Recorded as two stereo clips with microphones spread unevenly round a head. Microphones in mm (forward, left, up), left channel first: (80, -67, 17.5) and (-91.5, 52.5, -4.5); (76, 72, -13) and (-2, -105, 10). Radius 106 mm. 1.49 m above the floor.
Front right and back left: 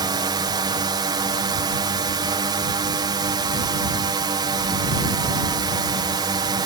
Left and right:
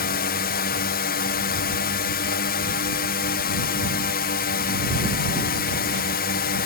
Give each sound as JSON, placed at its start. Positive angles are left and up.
{"t": 0.0, "sound": "a drone", "azimuth_deg": 80}